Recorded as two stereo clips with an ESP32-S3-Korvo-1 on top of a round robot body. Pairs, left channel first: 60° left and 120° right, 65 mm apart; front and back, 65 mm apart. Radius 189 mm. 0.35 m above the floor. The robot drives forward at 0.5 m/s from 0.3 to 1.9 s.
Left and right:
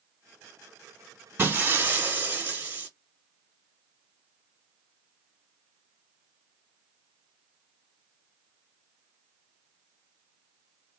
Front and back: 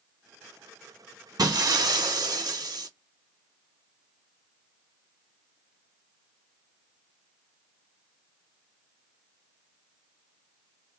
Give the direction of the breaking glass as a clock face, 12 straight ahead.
6 o'clock.